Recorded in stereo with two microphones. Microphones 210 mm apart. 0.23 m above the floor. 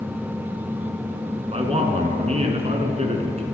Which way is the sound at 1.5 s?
30° right (ahead or behind).